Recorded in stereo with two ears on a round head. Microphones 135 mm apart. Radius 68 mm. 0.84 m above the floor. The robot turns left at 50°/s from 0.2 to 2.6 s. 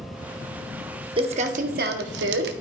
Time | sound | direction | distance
1.2 | crumpling | 35° right | 0.8 m